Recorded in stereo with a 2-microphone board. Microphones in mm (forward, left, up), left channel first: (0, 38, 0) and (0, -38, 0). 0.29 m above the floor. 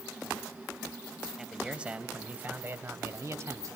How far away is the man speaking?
About 2 m.